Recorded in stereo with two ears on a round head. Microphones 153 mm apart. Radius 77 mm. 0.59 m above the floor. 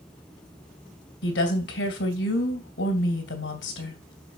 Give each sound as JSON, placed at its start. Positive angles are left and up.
{"t": 1.2, "sound": "a woman speaking", "side_deg": 75, "distance_m": 3.0}